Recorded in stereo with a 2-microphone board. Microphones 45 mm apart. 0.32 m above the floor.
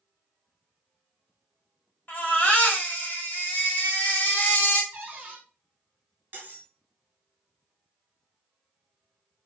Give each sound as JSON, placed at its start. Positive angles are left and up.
{"t": 2.1, "sound": "a baby crying", "side_deg": 40, "distance_m": 1.1}
{"t": 4.9, "sound": "a cupboard door", "side_deg": -35, "distance_m": 1.1}
{"t": 6.3, "sound": "cutlery clinking", "side_deg": -45, "distance_m": 1.3}